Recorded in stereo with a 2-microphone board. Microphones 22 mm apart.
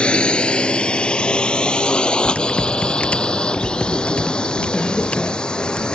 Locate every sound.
0.0 s a drone: 50° left (ahead or behind); by 6.0 s 40° left (ahead or behind)
2.2 s typing on a keyboard: 80° left